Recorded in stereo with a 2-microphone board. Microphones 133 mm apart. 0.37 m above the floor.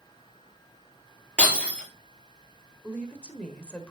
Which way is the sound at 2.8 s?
10° left (ahead or behind).